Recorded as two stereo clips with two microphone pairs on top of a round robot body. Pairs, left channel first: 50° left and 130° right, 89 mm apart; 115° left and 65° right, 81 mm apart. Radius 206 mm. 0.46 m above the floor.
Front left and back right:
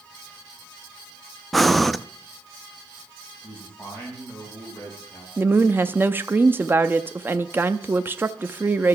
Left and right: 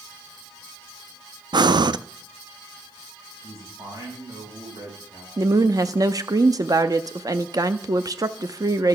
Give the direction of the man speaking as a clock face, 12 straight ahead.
1 o'clock.